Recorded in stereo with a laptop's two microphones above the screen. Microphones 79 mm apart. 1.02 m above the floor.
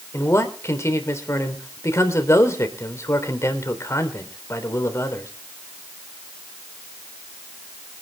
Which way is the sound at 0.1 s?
35° left (ahead or behind).